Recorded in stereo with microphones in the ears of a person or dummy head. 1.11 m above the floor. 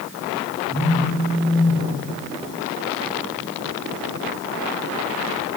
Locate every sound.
0.7 s a phone buzzing: 5° right (ahead or behind), 8 m